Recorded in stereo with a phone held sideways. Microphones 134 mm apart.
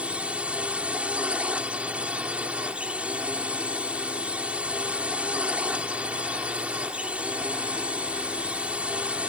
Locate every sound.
0.0 s a drone: 10° right (ahead or behind)